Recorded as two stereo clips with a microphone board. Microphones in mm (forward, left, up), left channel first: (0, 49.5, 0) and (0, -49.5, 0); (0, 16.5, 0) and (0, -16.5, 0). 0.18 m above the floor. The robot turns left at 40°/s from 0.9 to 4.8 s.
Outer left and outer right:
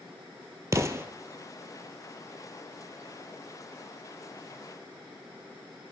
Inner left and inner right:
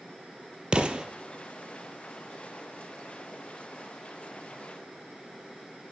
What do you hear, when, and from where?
0.7 s an explosion: 35° right (ahead or behind), 0.7 m; by 1.1 s 25° right (ahead or behind), 0.7 m